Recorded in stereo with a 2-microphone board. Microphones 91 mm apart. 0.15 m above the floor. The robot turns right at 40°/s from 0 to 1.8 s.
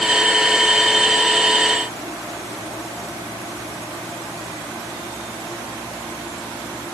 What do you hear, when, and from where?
Only background noise.